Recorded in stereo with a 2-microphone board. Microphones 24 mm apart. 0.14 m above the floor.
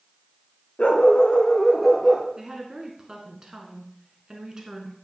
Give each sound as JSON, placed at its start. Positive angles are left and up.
{"t": 0.8, "sound": "a dog barking", "side_deg": 55, "distance_m": 1.1}
{"t": 2.4, "sound": "a woman speaking", "side_deg": -30, "distance_m": 1.2}